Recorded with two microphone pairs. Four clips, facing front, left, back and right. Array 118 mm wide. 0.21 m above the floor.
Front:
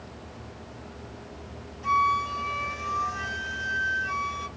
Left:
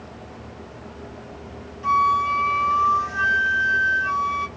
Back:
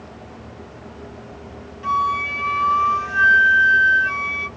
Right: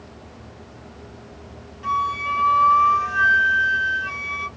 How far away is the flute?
About 1.0 m.